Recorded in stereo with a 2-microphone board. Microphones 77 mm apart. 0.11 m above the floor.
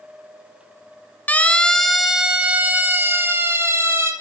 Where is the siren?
20° left (ahead or behind), 2 m; by 4.1 s 35° right (ahead or behind), 4.5 m.